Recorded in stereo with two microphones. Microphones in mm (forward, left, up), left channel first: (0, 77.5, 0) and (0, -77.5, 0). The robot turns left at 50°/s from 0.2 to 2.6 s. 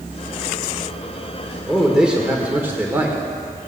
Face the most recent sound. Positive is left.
turn(degrees=-15)  # may be behind; listen again after turning